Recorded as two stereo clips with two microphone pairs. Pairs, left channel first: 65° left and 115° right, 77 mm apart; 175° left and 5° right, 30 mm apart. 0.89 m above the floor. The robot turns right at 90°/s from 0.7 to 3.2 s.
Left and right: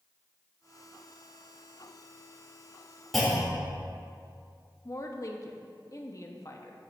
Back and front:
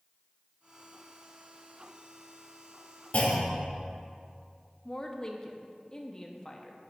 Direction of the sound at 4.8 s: 110° left.